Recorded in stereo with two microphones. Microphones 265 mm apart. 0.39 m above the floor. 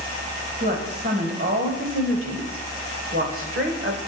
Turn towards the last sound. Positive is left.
turn(degrees=-45)  # may be behind; listen again after turning